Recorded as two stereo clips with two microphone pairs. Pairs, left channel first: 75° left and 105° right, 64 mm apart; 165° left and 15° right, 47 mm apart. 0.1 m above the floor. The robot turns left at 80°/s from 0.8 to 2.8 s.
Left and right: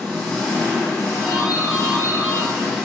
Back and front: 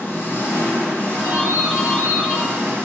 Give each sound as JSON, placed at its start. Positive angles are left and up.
{"t": 0.0, "sound": "an engine running", "azimuth_deg": 140, "distance_m": 2.0}
{"t": 1.2, "sound": "a doorbell", "azimuth_deg": 10, "distance_m": 1.9}